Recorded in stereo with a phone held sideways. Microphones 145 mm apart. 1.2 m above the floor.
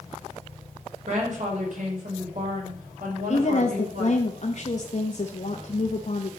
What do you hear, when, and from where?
1.1 s a woman speaking: 60° right (ahead or behind), 5 m; by 4.3 s 75° right (ahead or behind), 5.5 m
3.3 s a woman speaking: 55° left (ahead or behind), 1.2 m